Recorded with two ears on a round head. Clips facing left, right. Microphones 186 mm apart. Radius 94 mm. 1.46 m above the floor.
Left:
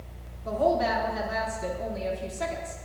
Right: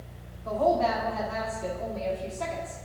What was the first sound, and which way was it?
A woman speaking, 20° left (ahead or behind).